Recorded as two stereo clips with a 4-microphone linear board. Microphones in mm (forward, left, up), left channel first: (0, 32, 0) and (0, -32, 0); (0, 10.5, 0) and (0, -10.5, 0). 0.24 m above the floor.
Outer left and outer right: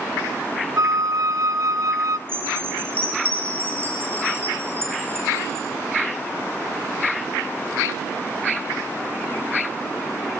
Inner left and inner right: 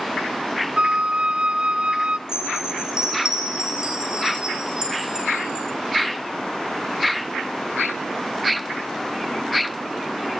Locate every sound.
0.8 s a flute: 65° right (ahead or behind), 0.8 m
2.3 s a chime: 35° right (ahead or behind), 9 m